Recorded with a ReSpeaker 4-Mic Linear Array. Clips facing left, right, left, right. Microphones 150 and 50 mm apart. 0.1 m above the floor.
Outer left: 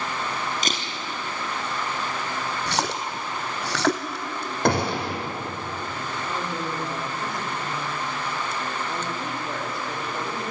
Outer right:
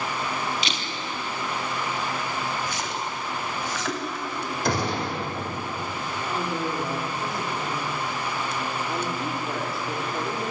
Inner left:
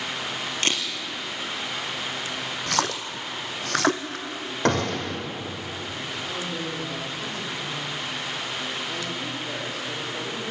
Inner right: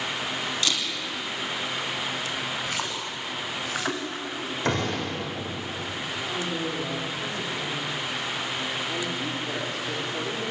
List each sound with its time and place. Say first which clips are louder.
0.6 s a camera shutter: outer left 2 dB, inner left 3 dB; 45° left (ahead or behind), 3 m
2.7 s a splash: outer left 3 dB, inner left 4 dB; 75° left (ahead or behind), 1.6 m
4.7 s a gunshot: outer left 4 dB, inner left 4 dB; 60° left (ahead or behind), 4.5 m
6.2 s a woman speaking: outer right 3 dB, inner right 2 dB; 5° right (ahead or behind), 4 m